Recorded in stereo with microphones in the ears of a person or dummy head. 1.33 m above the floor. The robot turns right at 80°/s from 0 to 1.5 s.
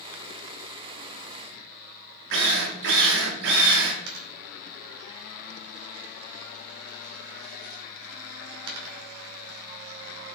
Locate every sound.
2.3 s a drill: 55° right (ahead or behind), 1.3 m
4.1 s a dropped coin: 75° right (ahead or behind), 2.5 m